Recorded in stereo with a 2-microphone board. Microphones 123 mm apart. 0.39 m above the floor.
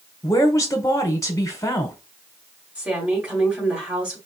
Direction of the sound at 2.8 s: 15° right (ahead or behind).